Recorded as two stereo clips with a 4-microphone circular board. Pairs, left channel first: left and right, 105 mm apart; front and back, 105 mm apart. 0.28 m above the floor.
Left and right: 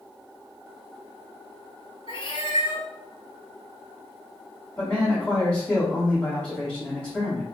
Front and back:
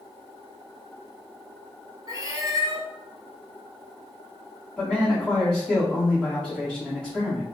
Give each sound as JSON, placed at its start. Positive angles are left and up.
{"t": 2.1, "sound": "a cat meowing", "azimuth_deg": 125, "distance_m": 0.6}
{"t": 4.8, "sound": "a man speaking", "azimuth_deg": 75, "distance_m": 1.4}